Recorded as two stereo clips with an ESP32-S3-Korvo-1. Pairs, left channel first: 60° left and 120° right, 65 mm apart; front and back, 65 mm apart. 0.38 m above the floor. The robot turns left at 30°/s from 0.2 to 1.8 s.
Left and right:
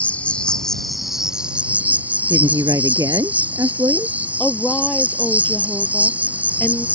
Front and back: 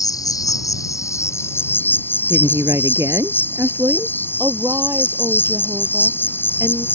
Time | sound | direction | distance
0.0 | an insect | 5° right | ?
2.3 | a woman speaking | 140° right | ?
4.4 | a woman speaking | 135° left | ?